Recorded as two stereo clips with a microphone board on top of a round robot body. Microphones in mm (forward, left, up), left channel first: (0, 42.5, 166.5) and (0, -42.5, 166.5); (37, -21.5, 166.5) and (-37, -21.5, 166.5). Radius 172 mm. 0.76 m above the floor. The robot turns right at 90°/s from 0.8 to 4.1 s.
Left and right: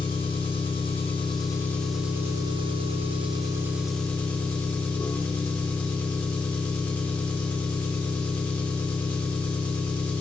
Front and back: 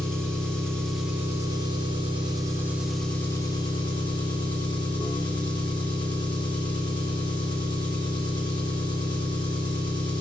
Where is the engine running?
80° left, 1.3 m; by 10.2 s 15° left, 1.3 m.